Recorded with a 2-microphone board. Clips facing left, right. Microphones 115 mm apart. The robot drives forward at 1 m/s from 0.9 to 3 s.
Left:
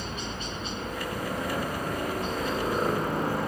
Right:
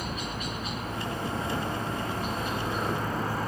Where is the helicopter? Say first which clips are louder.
Right 1 dB; 30° left (ahead or behind).